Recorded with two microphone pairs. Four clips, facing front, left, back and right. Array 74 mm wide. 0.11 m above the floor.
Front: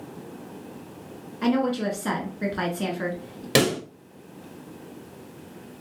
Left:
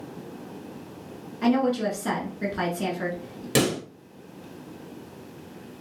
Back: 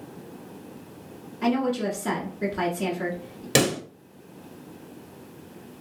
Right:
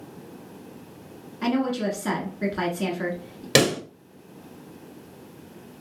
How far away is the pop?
About 1.2 m.